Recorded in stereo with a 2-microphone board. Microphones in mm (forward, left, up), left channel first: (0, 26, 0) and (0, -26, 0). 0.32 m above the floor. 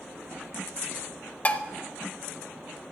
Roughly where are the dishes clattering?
Left.